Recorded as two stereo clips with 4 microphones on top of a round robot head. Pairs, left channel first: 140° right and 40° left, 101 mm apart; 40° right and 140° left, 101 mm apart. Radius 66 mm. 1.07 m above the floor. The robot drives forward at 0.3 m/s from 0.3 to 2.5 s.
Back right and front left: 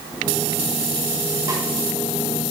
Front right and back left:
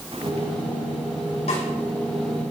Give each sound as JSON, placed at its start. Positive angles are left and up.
{"t": 1.5, "sound": "a snare drum", "azimuth_deg": -20, "distance_m": 6.0}